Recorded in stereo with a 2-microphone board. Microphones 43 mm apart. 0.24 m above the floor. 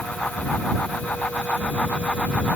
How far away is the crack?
I don't hear a crack.